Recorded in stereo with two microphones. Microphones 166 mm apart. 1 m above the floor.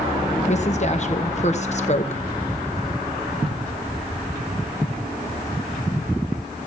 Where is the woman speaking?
45° left (ahead or behind), 1.0 m.